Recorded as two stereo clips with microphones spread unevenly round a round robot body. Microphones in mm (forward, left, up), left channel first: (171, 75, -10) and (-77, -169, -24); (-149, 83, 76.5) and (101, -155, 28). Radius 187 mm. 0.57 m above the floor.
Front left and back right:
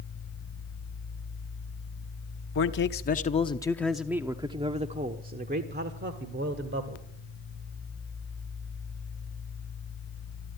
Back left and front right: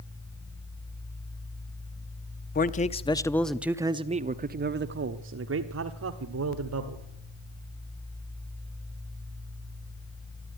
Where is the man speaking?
75° left, 0.9 m; by 7.0 s 80° right, 2.0 m.